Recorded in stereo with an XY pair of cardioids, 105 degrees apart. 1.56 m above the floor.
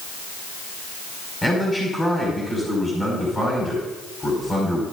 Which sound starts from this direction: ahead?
A man speaking, at 1.4 s.